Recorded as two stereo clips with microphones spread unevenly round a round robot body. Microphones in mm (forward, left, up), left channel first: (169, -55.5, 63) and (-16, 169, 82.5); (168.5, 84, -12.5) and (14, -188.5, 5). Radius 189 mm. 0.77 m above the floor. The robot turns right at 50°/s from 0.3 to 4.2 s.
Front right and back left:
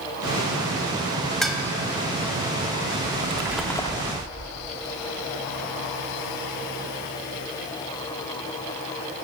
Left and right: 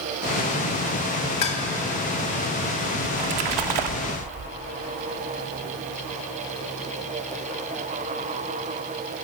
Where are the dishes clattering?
40° left, 3 m; by 1.6 s 50° left, 3 m.